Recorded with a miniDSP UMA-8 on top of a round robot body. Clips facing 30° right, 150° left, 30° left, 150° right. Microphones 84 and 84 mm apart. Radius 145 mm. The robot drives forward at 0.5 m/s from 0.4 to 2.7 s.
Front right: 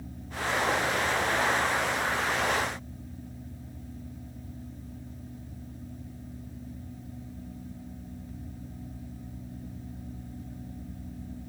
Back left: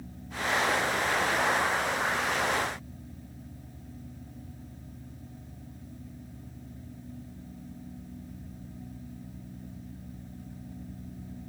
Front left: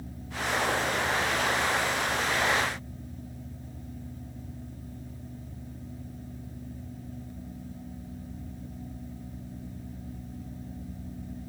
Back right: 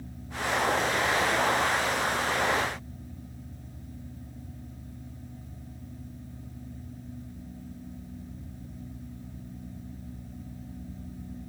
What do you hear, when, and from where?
Only background noise.